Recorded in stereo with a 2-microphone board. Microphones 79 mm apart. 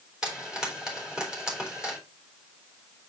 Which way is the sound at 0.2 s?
10° right (ahead or behind).